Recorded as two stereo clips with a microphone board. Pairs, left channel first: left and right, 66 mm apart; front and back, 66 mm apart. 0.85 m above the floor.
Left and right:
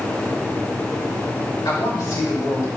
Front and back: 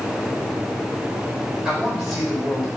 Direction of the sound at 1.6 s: 95° left.